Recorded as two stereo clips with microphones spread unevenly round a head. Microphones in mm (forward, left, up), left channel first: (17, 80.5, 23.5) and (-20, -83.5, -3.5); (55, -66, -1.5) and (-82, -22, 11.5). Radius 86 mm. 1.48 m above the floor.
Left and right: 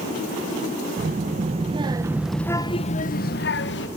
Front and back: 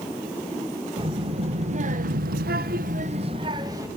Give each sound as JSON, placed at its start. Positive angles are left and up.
{"t": 1.0, "sound": "a child speaking", "azimuth_deg": -145, "distance_m": 1.5}